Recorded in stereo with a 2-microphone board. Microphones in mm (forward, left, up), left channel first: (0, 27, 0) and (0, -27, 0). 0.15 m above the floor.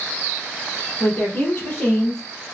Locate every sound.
1.0 s a woman speaking: 30° left (ahead or behind), 4 m; by 2.2 s 45° left (ahead or behind), 3 m